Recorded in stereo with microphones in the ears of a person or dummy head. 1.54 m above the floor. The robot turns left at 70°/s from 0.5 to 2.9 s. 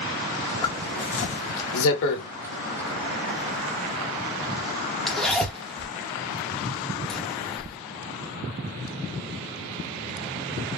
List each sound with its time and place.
0.6 s a zipper: 20° left (ahead or behind), 0.8 m; by 7.8 s centre (ahead or behind), 0.8 m